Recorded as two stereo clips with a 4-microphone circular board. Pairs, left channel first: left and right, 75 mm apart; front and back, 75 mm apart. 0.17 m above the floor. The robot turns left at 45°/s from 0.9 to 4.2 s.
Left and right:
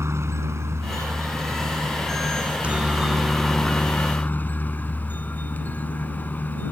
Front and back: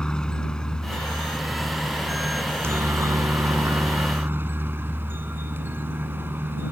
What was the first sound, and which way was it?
A helicopter, 70° right.